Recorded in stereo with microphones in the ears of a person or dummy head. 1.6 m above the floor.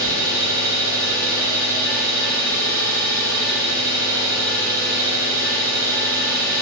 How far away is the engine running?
About 1.0 m.